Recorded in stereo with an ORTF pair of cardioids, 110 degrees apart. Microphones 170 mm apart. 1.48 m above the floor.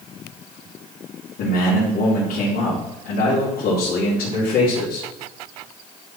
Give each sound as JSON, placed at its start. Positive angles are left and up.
{"t": 1.4, "sound": "a man speaking", "azimuth_deg": 60, "distance_m": 3.5}